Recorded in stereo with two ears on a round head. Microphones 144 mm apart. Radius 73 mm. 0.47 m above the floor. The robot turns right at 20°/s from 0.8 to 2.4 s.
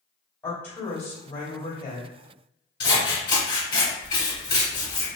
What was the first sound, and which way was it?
A woman speaking, 15° left (ahead or behind).